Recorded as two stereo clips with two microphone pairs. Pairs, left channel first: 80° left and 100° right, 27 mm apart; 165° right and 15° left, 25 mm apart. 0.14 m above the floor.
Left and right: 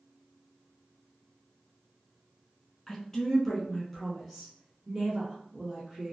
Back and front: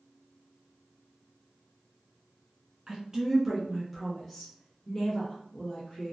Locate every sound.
2.9 s a woman speaking: 20° left, 1.4 m; by 6.1 s 155° right, 1.7 m